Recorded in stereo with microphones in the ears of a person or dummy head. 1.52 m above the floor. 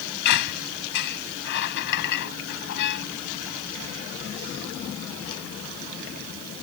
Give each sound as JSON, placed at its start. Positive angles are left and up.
{"t": 0.2, "sound": "a squeak", "side_deg": 60}